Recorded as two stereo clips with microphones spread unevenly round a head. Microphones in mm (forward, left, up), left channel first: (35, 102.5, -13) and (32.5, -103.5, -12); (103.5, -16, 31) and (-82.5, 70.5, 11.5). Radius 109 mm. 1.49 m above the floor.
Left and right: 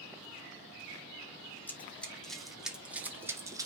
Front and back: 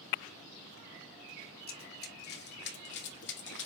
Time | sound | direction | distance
1.7 | running footsteps | 10° left | 3.5 m